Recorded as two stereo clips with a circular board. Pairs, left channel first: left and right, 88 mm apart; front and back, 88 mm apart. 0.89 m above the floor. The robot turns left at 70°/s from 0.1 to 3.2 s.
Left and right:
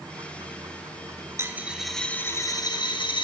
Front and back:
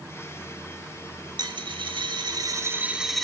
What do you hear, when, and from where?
1.4 s a dropped coin: 145° right, 1.0 m; by 3.2 s 85° left, 1.0 m